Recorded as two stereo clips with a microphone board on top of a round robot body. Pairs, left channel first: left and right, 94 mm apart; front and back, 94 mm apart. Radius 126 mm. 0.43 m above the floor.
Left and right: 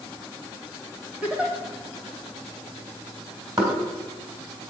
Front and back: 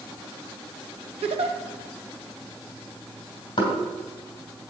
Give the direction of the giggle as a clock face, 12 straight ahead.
6 o'clock.